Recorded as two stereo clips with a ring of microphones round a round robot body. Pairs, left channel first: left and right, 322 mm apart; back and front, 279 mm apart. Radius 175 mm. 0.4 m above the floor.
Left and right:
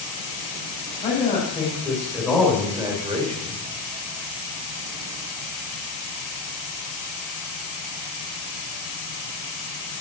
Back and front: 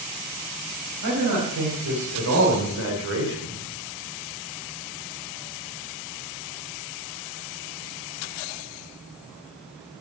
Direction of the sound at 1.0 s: 20° left.